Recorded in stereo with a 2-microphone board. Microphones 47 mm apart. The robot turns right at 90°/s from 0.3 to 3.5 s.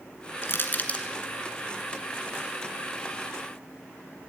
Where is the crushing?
55° left (ahead or behind), 1.9 m; by 1.1 s 20° left (ahead or behind), 1.9 m.